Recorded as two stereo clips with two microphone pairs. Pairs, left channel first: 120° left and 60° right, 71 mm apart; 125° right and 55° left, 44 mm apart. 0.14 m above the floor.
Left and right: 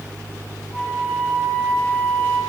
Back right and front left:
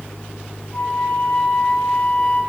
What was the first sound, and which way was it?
A flute, 175° right.